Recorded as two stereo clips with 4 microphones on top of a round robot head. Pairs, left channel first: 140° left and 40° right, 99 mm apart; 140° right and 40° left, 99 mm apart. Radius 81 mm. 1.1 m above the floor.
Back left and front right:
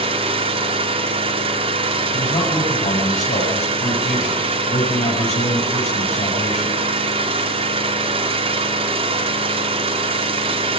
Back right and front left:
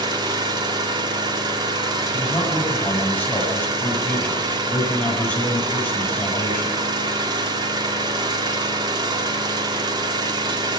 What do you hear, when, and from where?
0.0 s an engine running: 10° right, 2 m
2.1 s a man speaking: 145° left, 6.5 m